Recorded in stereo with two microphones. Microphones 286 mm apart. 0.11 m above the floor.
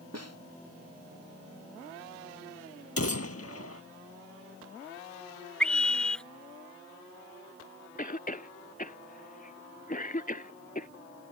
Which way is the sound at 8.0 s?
30° left (ahead or behind).